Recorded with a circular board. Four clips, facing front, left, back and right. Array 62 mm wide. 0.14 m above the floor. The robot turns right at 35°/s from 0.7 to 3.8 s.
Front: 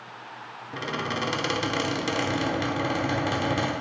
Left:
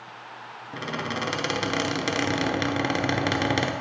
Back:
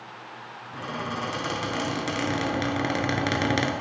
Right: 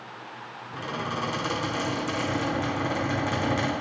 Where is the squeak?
40° left, 0.8 m; by 3.7 s 145° left, 0.8 m.